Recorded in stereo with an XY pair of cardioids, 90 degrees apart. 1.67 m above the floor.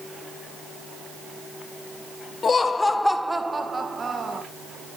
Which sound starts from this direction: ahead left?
Laughter, at 2.4 s.